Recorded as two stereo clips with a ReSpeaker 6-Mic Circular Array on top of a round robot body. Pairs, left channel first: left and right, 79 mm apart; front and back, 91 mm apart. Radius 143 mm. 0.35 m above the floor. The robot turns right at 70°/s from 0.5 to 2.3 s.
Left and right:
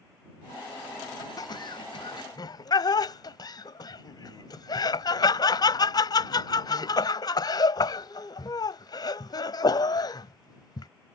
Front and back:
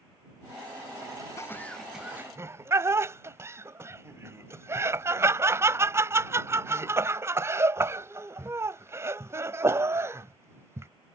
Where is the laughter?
55° left; by 10.9 s 120° left.